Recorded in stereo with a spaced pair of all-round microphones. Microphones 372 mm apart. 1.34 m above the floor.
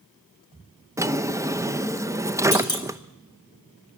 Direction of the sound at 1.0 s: 10° right (ahead or behind).